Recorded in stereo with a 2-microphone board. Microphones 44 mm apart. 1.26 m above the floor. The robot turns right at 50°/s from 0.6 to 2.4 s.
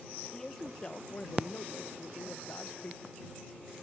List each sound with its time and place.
0.3 s a man speaking: 15° left; by 3.2 s 105° left